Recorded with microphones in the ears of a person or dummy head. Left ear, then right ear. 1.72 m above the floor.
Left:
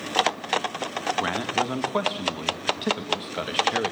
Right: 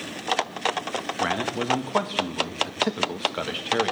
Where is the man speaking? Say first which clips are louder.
Right 1 dB; 5° right (ahead or behind), 1.8 m.